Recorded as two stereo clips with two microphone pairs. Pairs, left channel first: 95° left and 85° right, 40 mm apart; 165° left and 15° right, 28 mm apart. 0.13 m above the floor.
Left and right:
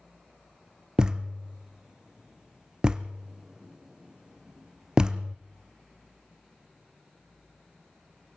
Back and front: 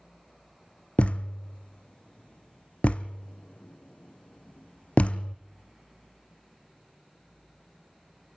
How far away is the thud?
About 0.6 m.